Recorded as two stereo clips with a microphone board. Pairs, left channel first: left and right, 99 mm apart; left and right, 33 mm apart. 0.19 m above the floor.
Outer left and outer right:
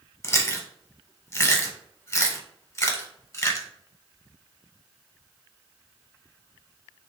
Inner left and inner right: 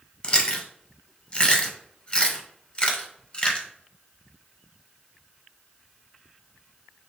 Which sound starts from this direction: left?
Chewing, at 0.2 s.